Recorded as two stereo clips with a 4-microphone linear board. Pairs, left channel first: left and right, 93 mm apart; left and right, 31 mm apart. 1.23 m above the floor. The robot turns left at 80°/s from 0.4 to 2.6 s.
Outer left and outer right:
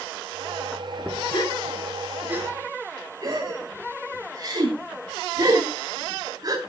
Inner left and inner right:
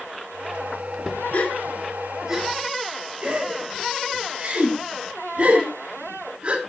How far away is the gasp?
About 2.5 m.